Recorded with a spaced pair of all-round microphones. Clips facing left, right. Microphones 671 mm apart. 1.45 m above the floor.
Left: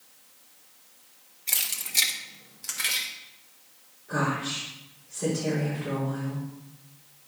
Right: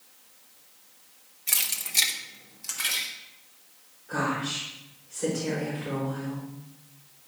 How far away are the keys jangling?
About 0.8 m.